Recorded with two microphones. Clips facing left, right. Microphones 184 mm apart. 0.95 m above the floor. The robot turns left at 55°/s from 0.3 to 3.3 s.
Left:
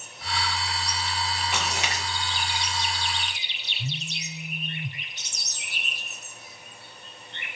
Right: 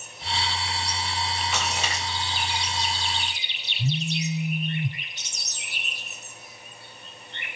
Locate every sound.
1.5 s a splash: 55° left (ahead or behind), 9.5 m; by 2.0 s 85° left, 9.5 m
3.8 s a phone buzzing: 30° right (ahead or behind), 3 m